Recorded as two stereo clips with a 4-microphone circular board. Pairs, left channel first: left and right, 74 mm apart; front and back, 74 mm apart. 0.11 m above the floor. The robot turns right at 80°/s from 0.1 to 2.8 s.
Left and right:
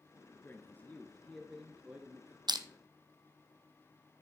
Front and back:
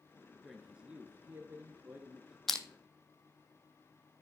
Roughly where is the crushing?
Right.